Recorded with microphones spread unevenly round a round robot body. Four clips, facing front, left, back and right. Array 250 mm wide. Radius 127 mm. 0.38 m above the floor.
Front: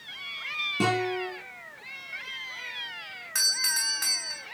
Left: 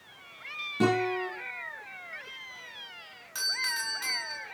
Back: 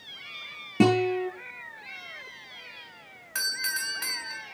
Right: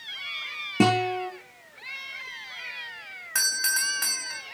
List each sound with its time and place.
0.8 s a guitar: 135° right, 6.5 m
3.4 s a doorbell: 130° right, 3 m